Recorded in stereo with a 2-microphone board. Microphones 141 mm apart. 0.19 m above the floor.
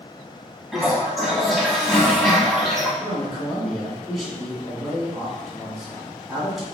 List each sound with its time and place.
0.7 s a toilet flushing: centre (ahead or behind), 1.2 m
3.0 s a man speaking: centre (ahead or behind), 1.9 m